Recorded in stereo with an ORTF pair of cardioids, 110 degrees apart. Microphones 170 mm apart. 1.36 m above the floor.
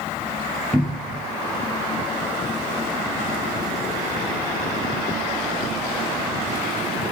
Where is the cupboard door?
Straight ahead, 0.9 m.